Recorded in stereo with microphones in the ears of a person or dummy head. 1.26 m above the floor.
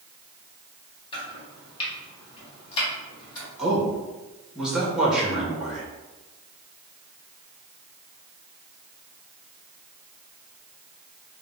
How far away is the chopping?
About 1.0 m.